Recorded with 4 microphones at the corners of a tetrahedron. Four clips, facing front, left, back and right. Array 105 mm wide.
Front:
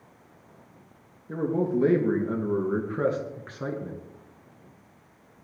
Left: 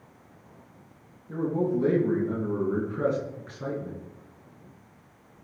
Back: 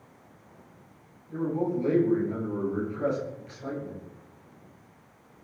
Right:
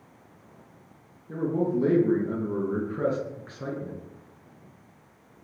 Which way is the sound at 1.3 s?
10° right.